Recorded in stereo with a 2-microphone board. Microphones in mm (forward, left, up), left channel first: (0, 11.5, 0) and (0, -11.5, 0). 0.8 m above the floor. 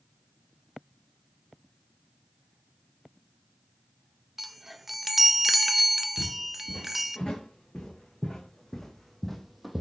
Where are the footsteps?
35° left (ahead or behind), 4 m; by 9.8 s 5° right (ahead or behind), 1.4 m.